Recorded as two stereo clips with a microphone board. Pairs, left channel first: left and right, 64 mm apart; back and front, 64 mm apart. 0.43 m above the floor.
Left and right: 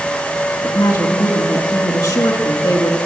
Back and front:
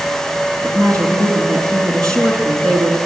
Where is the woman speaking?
105° left, 5.5 m.